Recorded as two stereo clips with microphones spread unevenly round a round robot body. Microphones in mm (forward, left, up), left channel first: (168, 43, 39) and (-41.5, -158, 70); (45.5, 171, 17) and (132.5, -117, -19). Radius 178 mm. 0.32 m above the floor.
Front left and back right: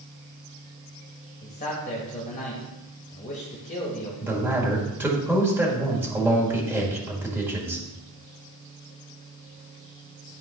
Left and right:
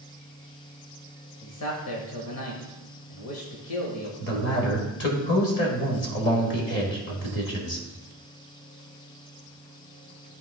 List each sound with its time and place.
1.4 s a man speaking: 95° left, 1.3 m
4.2 s a man speaking: 135° left, 1.7 m